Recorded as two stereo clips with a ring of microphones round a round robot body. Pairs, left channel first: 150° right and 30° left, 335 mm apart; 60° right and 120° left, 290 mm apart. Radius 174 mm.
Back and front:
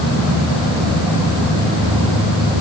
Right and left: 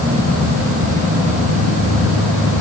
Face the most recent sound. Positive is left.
No sound to turn to.